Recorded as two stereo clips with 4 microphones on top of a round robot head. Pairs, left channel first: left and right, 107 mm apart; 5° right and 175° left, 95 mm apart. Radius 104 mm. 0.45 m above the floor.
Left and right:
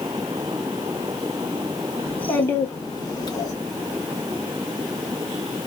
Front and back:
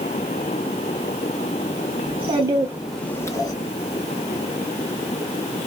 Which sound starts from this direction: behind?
A child speaking, at 2.0 s.